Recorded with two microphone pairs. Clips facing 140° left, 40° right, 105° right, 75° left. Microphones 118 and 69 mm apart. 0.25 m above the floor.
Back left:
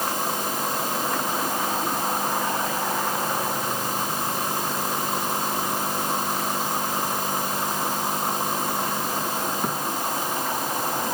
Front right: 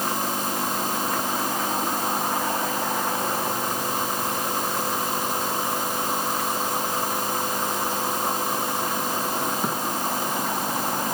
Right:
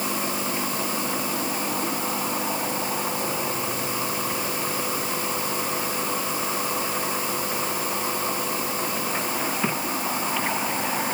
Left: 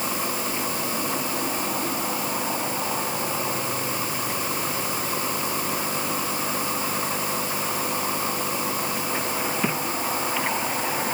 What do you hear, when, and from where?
Only background noise.